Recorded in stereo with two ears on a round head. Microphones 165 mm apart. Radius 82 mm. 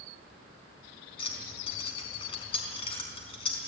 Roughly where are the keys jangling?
Left.